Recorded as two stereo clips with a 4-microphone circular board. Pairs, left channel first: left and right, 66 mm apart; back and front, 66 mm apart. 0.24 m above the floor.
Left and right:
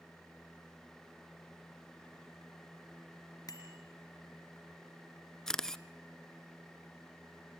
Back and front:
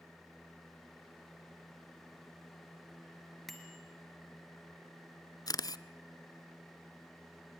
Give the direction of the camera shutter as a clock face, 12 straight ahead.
6 o'clock.